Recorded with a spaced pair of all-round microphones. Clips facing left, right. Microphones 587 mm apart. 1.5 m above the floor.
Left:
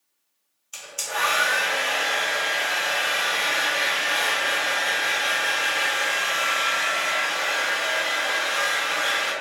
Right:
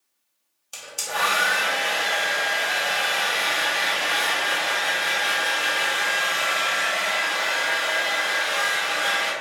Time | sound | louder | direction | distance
0.7 | a hair dryer | right 2 dB | 55° right (ahead or behind) | 0.9 m